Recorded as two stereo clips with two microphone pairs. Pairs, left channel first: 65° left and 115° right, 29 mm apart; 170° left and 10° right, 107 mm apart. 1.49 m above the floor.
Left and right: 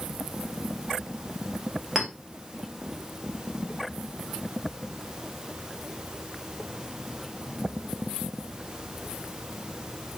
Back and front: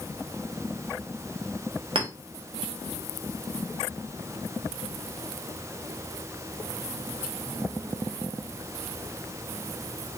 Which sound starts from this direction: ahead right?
A clink, at 1.9 s.